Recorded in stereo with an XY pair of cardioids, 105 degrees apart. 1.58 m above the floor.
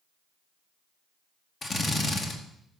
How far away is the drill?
About 2.5 m.